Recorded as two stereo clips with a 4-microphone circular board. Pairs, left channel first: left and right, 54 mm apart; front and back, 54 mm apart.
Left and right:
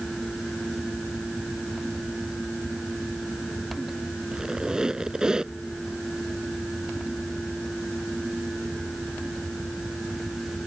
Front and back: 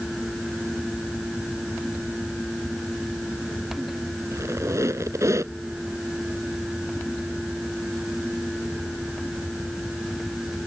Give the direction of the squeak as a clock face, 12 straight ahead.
5 o'clock.